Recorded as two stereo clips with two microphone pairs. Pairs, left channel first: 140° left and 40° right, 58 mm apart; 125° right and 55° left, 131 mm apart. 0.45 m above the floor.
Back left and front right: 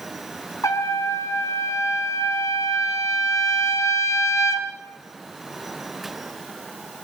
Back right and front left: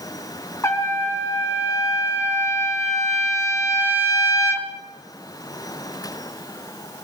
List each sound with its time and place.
0.6 s a trumpet: 165° left, 3 m